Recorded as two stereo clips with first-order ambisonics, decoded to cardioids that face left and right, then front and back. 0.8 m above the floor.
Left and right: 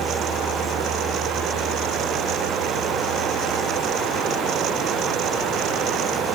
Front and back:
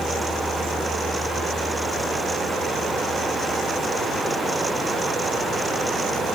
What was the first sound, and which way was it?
Only background noise.